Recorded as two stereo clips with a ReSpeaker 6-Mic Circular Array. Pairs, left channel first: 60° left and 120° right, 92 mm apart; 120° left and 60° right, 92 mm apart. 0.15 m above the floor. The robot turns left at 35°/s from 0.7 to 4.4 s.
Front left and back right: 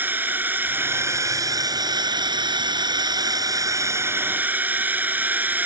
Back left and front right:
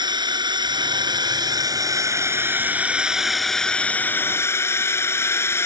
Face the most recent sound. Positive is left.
turn(degrees=175)